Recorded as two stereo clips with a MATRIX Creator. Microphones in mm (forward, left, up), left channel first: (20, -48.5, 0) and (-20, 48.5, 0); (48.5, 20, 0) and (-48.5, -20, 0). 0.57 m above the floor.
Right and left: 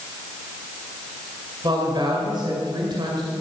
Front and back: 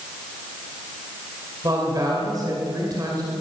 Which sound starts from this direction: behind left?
A woman speaking, at 1.6 s.